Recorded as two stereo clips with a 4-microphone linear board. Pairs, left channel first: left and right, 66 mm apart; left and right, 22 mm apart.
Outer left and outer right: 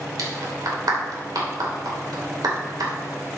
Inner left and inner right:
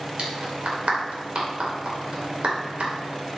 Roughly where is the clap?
Right.